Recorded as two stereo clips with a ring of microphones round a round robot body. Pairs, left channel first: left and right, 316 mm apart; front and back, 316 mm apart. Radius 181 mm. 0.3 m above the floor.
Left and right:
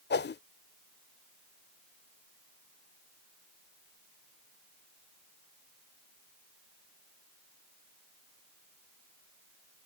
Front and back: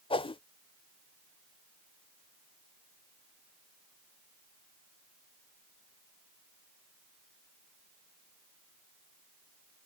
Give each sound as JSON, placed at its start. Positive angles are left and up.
{"t": 0.1, "sound": "a whoosh", "azimuth_deg": 65}